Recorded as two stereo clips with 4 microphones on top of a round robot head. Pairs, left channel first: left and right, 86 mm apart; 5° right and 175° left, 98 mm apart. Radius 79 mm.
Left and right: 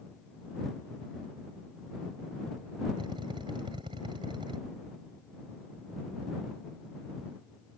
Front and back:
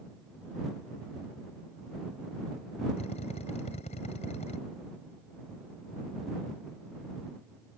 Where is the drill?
40° right.